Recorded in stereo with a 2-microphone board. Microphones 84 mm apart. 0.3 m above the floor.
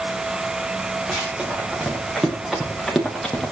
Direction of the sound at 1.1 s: 15° right (ahead or behind).